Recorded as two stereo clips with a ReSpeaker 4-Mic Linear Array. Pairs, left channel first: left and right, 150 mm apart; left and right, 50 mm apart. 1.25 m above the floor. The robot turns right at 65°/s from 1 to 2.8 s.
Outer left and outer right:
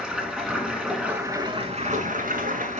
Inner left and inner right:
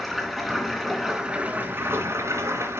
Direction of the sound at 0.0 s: 175° right.